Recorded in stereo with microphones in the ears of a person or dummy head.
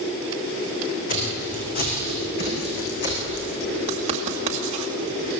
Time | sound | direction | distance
1.1 | footsteps | 40° left (ahead or behind) | 6.5 m
3.9 | writing | 35° right (ahead or behind) | 2 m